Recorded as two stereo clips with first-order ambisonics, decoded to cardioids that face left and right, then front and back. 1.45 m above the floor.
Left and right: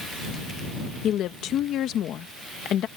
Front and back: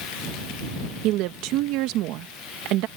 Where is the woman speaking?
145° left.